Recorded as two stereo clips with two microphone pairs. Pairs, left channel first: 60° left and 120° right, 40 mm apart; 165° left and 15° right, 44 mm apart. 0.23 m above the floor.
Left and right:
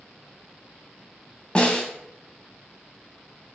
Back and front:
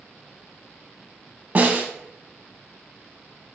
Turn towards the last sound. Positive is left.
turn(degrees=5)